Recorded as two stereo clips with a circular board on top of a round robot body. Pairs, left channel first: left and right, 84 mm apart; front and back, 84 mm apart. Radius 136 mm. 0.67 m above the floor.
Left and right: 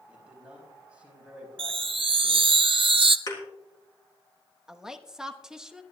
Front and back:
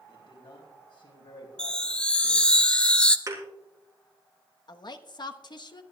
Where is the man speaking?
15° right, 5 m.